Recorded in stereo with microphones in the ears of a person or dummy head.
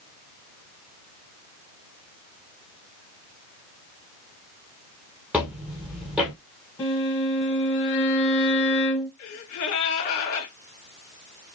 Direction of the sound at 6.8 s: 15° left (ahead or behind).